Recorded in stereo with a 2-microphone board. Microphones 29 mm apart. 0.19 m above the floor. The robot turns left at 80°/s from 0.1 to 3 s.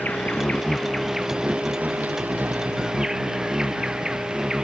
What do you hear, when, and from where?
0.0 s an insect: 75° left; by 4.7 s 155° right